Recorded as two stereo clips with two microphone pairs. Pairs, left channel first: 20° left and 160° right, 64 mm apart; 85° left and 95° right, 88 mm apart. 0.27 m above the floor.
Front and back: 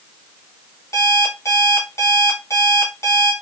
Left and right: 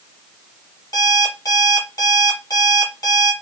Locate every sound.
0.9 s an alarm clock: 45° left, 1.2 m